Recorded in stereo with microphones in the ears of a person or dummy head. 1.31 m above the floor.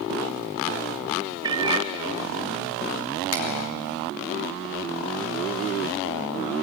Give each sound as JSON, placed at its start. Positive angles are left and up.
{"t": 1.4, "sound": "a cat meowing", "side_deg": -25, "distance_m": 1.1}
{"t": 3.3, "sound": "a finger snap", "side_deg": 75, "distance_m": 3.0}